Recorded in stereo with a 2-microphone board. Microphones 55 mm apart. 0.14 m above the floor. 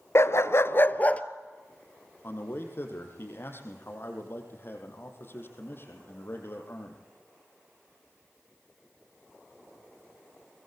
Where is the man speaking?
50° left (ahead or behind), 5 m.